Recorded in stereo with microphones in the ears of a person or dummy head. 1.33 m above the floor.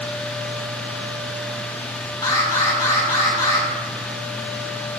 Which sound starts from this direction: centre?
An alarm, at 2.2 s.